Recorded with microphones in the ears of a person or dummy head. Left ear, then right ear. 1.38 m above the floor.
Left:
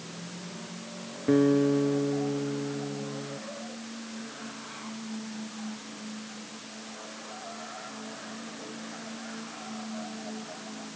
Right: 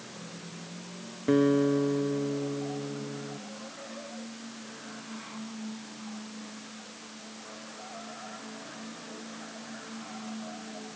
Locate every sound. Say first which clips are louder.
1.3 s a guitar: left 1 dB; 25° right (ahead or behind)